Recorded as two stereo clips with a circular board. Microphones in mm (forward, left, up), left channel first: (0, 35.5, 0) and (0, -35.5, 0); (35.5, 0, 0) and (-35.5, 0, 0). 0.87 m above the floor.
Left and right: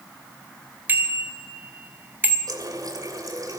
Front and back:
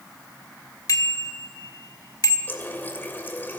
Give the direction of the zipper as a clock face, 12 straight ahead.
No zipper in this recording.